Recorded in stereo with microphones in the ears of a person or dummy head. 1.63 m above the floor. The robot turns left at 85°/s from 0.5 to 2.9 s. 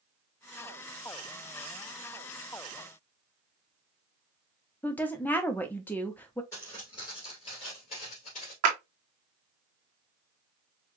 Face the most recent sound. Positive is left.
turn(degrees=-55)  # may be behind; listen again after turning